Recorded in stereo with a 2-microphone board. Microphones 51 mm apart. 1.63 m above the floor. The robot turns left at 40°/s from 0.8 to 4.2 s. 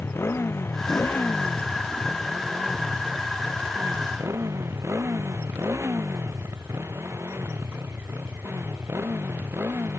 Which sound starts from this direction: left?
A motorcycle, at 0.0 s.